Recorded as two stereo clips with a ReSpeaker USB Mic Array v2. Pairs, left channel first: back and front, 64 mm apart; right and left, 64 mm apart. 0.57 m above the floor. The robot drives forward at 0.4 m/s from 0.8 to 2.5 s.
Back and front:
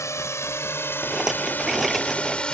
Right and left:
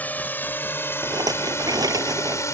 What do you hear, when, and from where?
0.0 s a drone: 150° right; by 2.5 s 110° right
1.0 s a rattle: 80° left; by 2.5 s 90° left